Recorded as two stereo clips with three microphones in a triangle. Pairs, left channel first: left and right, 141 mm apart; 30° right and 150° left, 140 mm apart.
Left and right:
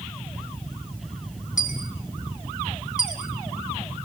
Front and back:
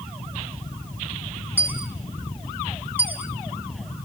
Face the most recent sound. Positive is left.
turn(degrees=75)